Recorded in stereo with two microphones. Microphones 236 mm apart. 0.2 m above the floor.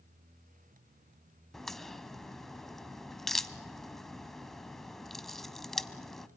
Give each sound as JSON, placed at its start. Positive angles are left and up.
{"t": 1.5, "sound": "a crack", "side_deg": 0, "distance_m": 0.6}